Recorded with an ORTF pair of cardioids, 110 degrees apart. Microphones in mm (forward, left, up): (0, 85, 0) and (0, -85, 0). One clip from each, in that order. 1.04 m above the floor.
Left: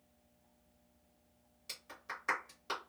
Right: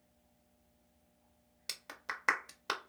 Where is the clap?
60° right, 1.0 m.